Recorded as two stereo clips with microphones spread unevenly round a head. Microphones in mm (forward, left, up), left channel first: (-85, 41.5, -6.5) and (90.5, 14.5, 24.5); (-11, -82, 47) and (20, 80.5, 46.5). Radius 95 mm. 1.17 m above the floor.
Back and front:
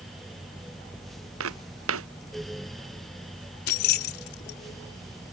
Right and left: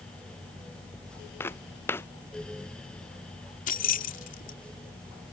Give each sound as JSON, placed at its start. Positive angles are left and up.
{"t": 1.4, "sound": "footsteps", "azimuth_deg": -25}
{"t": 3.7, "sound": "keys jangling", "azimuth_deg": -145}